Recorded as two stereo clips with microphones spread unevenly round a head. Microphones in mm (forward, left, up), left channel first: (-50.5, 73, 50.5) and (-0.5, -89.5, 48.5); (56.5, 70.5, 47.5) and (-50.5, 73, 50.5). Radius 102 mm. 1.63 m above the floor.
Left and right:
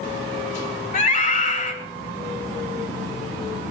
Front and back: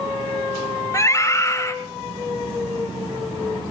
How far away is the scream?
About 2 m.